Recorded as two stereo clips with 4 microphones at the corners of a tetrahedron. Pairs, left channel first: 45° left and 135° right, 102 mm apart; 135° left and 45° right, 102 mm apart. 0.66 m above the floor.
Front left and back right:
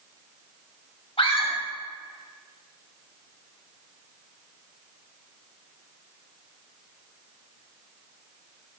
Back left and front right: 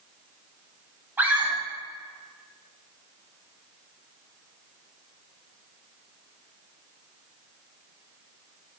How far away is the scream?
About 3.5 m.